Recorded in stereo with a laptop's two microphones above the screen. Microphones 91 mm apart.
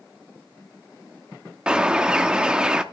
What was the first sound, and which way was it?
A bird, 10° right (ahead or behind).